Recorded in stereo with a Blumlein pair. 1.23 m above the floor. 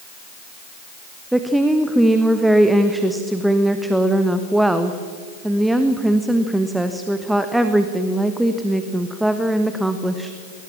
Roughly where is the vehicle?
I don't hear a vehicle.